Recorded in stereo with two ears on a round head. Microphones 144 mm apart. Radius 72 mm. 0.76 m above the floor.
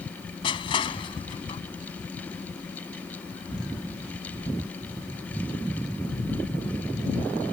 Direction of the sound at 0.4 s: 30° left (ahead or behind).